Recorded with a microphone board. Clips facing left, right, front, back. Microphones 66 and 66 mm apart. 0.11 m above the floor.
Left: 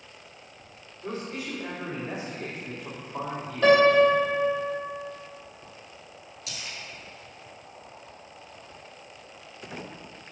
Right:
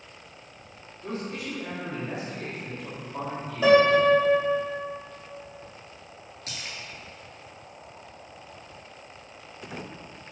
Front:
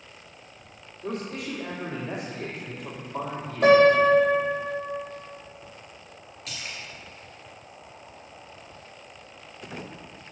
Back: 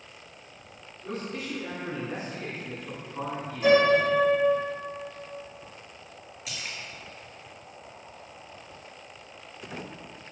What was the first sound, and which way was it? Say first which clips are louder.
A man speaking: right 1 dB, front 2 dB; 5° left.